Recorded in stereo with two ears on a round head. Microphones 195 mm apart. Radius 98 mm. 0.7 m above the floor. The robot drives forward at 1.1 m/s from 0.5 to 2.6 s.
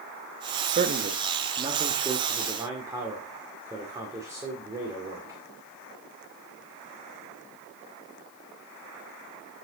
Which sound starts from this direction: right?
A man speaking, at 0.7 s.